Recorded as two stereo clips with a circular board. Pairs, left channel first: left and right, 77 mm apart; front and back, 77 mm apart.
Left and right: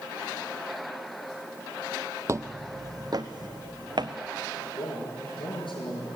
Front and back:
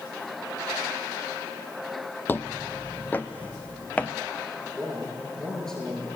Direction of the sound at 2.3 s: 55° right.